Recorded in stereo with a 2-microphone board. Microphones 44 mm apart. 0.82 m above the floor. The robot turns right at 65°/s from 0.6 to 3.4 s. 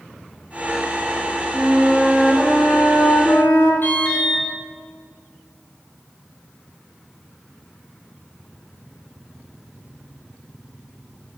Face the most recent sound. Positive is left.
turn(degrees=55)  # may be behind; listen again after turning